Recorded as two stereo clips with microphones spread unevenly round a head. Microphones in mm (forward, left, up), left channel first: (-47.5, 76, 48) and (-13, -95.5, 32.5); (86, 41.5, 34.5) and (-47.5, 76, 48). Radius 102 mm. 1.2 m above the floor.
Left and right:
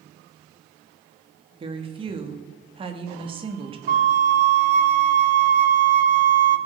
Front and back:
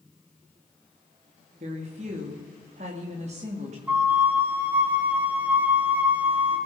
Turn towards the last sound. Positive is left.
turn(degrees=-110)